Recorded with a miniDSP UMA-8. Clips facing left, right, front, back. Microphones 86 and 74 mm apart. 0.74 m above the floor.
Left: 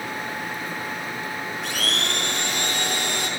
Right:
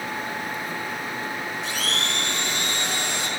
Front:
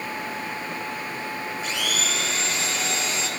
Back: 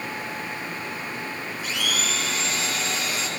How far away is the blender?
About 3.5 m.